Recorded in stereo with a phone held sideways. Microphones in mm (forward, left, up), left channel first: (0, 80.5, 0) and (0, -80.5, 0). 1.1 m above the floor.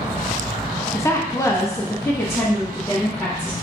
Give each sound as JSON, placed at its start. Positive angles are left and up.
{"t": 0.9, "sound": "a woman speaking", "side_deg": 15, "distance_m": 0.5}